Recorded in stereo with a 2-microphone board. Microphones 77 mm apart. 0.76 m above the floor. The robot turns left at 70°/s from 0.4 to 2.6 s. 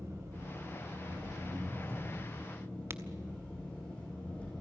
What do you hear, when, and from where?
0.0 s an engine running: 45° right, 9.5 m; by 4.6 s 165° left, 9.5 m
2.9 s a crack: 35° right (ahead or behind), 0.9 m